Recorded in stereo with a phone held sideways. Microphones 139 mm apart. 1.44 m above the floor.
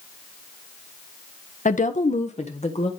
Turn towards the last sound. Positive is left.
turn(degrees=45)  # may be behind; listen again after turning